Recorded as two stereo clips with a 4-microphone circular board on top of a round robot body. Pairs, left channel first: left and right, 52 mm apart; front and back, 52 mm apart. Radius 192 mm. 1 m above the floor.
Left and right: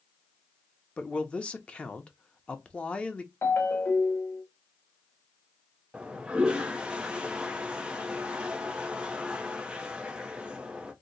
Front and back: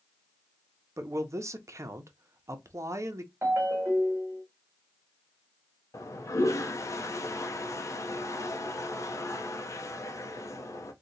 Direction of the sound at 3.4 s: 140° left.